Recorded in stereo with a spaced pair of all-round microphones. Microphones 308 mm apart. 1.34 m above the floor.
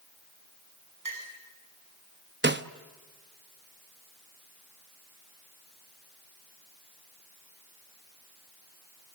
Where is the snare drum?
35° right (ahead or behind), 0.9 m.